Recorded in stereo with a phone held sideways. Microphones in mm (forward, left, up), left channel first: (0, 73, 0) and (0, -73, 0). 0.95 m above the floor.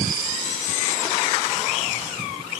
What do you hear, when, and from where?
Only background noise.